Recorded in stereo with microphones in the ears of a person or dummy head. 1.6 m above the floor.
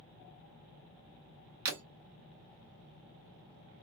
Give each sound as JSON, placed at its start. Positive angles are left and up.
{"t": 1.6, "sound": "breaking glass", "side_deg": -45, "distance_m": 1.9}